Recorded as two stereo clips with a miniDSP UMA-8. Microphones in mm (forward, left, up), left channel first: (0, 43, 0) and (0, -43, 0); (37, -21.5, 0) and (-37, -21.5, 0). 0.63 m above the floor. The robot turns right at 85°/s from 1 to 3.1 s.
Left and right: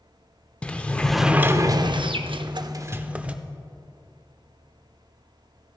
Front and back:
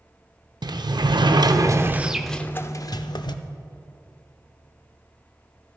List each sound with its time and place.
0.6 s a sliding door: 165° left, 0.5 m; by 3.4 s 15° right, 0.5 m